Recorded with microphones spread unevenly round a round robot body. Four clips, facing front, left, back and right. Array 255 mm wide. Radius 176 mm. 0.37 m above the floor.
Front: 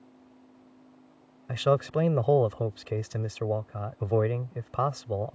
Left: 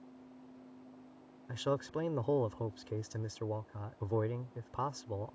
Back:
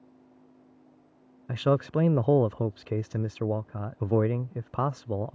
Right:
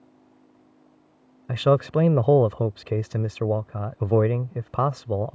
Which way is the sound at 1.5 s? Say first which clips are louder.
Right 15 dB, even; 80° right.